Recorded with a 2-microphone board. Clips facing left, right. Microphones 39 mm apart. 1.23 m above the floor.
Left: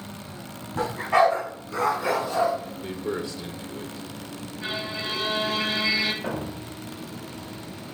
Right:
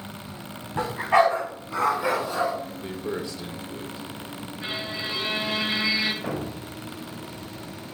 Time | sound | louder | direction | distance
0.8 | a dog barking | even | 30° right (ahead or behind) | 3.5 m
2.8 | a man speaking | left 1 dB | 10° right (ahead or behind) | 0.8 m
4.6 | a violin | left 1 dB | 30° right (ahead or behind) | 1.4 m
6.2 | a thud | even | 5° right (ahead or behind) | 1.8 m